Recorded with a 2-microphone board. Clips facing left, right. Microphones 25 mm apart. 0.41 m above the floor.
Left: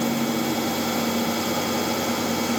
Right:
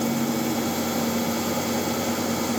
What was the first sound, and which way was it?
Only background noise.